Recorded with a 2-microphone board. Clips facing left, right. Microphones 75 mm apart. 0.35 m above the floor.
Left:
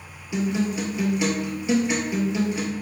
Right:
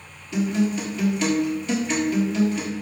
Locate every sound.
0.3 s a guitar: 15° left (ahead or behind), 1.1 m